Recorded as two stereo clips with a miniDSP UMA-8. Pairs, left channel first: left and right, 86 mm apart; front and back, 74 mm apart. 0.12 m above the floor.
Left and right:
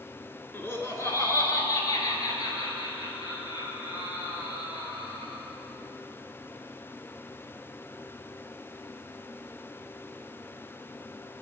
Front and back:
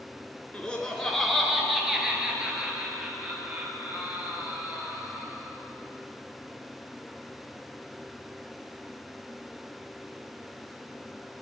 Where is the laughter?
55° left, 1.7 m; by 5.4 s 115° left, 4.5 m.